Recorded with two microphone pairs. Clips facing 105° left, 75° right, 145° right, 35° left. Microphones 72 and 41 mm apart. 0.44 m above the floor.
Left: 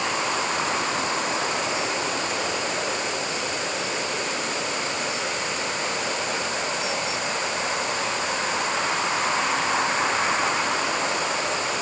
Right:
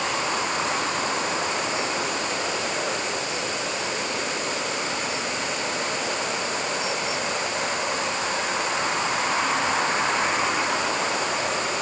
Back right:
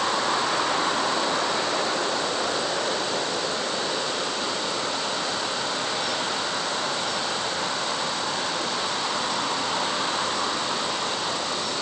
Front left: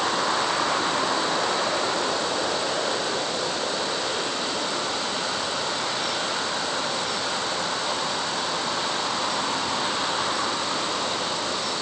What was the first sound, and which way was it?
Only background noise.